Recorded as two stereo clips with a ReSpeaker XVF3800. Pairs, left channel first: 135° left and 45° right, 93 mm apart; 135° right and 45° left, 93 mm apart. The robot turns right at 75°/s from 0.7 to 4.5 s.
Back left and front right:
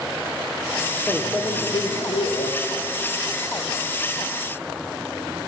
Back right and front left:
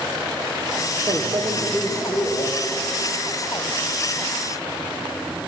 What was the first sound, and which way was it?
A microwave, 45° left.